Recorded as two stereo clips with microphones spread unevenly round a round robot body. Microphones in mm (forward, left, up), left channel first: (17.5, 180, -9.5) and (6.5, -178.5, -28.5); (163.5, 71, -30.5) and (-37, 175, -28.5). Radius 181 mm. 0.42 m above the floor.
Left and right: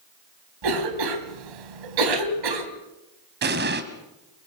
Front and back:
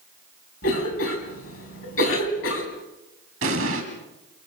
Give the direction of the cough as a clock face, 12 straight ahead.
3 o'clock.